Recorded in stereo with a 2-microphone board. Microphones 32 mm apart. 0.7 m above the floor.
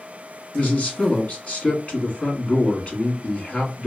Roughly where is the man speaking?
Left.